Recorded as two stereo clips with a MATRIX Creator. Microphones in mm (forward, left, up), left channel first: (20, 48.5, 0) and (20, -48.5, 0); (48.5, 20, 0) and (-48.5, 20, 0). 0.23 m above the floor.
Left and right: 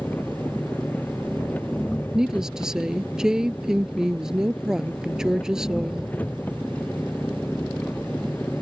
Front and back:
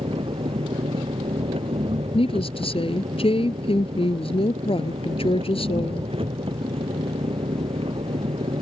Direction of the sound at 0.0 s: 165° left.